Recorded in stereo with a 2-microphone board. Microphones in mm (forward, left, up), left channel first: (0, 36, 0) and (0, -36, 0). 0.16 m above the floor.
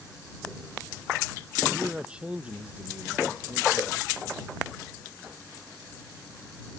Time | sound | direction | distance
1.8 | a man speaking | 10° right (ahead or behind) | ?